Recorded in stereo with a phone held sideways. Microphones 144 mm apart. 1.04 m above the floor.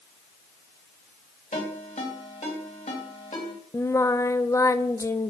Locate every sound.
1.5 s a ringtone: 60° left (ahead or behind), 3.5 m
3.7 s singing: 20° left (ahead or behind), 0.6 m